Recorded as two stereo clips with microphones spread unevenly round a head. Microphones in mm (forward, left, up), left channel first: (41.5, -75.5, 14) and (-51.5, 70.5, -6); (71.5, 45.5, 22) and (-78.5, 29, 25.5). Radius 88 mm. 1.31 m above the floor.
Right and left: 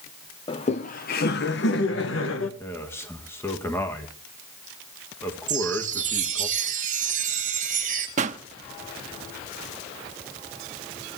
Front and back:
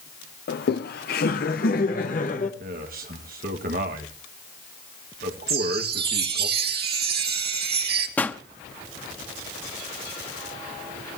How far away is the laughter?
About 0.7 m.